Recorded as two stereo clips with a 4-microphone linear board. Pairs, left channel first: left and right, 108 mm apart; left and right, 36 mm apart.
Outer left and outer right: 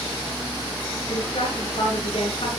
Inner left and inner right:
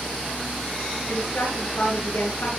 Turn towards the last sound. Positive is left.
turn(degrees=55)  # may be behind; listen again after turning